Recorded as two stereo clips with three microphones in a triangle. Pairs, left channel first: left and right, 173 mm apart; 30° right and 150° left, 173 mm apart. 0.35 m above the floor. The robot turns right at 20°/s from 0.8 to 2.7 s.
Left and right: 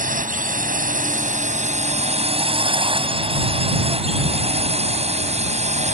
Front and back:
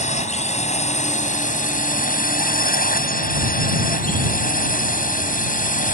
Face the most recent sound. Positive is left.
turn(degrees=-50)